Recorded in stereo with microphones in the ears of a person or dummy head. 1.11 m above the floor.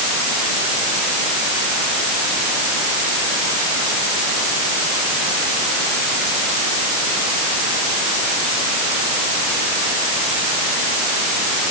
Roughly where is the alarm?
I don't hear an alarm.